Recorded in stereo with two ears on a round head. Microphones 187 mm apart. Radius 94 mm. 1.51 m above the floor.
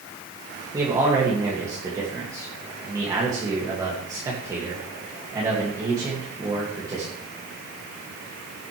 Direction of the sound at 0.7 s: 15° right (ahead or behind).